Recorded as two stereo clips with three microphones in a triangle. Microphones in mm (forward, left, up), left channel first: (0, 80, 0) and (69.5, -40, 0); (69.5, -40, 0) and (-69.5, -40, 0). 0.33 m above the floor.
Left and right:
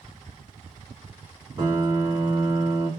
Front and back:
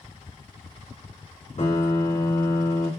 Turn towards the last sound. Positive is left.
turn(degrees=0)